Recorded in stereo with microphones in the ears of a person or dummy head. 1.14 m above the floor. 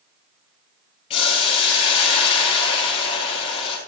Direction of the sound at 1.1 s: 35° left (ahead or behind).